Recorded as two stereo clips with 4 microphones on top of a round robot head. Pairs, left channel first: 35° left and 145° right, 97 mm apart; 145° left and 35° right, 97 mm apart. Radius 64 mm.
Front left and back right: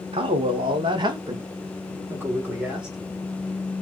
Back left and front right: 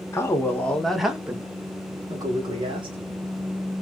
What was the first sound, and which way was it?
A man speaking, 155° right.